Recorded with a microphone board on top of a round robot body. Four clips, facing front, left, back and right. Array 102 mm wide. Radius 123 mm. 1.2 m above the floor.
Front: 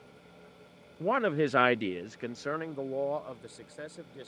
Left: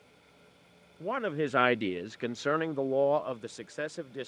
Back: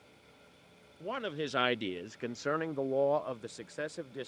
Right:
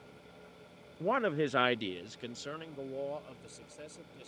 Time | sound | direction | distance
1.0 | a man speaking | 20° right | ?